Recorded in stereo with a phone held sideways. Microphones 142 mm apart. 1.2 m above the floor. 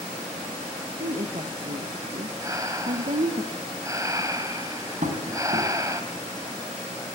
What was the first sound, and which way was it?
A woman speaking, 70° right (ahead or behind).